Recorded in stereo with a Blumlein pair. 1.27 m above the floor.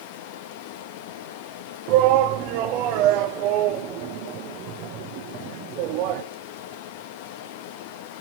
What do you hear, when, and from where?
0.0 s running water: 45° left, 1.6 m
1.9 s a shout: 40° right, 1.0 m